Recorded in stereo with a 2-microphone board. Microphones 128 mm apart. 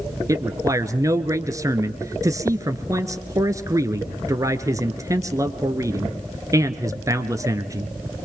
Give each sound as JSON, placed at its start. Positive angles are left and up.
{"t": 0.3, "sound": "a man speaking", "side_deg": -25, "distance_m": 1.3}